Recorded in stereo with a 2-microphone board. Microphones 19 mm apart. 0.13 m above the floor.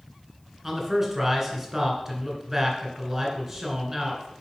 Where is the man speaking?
15° right (ahead or behind), 1.5 m.